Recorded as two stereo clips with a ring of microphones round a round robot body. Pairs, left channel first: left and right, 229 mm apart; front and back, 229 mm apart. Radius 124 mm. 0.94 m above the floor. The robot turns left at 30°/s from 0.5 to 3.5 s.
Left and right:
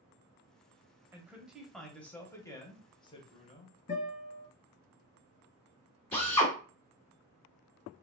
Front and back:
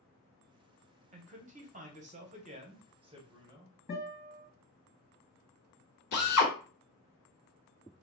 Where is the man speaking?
165° right, 0.7 m; by 3.8 s 125° left, 0.7 m.